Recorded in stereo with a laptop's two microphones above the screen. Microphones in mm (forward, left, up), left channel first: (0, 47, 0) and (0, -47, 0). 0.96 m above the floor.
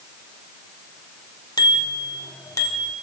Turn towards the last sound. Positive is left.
turn(degrees=30)  # may be behind; listen again after turning